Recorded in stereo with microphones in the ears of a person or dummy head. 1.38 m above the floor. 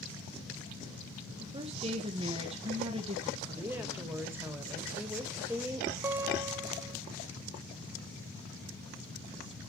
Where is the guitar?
15° right (ahead or behind), 0.6 m.